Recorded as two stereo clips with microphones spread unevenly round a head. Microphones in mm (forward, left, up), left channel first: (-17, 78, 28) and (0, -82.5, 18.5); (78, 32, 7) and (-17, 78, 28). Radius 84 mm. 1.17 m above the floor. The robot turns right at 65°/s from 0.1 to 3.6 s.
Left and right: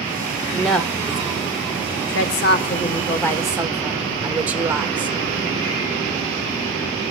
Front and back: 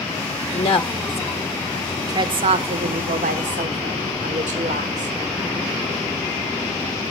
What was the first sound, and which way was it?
A woman speaking, 5° right.